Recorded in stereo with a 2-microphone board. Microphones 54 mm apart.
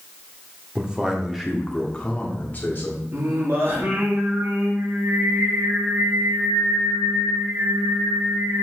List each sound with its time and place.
0.8 s a man speaking: 20° right (ahead or behind), 1.4 m; by 3.0 s 45° left (ahead or behind), 1.6 m
3.1 s singing: 50° right (ahead or behind), 2.5 m